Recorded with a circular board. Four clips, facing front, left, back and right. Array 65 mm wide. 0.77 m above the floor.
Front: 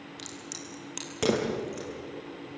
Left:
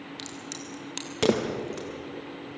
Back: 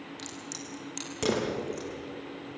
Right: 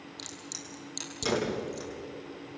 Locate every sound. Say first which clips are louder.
0.2 s a crack: left 6 dB, back 1 dB; 80° left, 4.5 m